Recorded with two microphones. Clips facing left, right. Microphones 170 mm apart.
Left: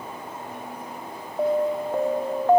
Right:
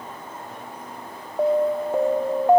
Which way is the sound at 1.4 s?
10° right (ahead or behind).